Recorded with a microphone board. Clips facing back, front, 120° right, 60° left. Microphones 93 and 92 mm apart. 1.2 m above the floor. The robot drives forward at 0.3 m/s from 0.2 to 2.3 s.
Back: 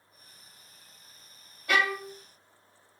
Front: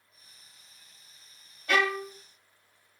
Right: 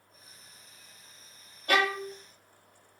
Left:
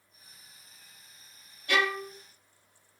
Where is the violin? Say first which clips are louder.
Front 1 dB, right 2 dB; 95° right, 0.7 m; by 2.1 s 105° right, 0.7 m.